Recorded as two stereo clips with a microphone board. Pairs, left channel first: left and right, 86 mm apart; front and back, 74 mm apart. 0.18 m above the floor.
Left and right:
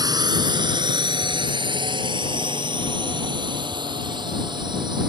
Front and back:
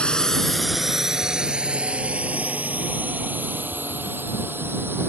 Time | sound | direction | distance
0.0 | a drone | 75° right | ?